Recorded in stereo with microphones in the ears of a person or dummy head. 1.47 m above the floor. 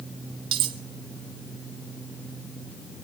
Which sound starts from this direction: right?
Cutlery clinking, at 0.5 s.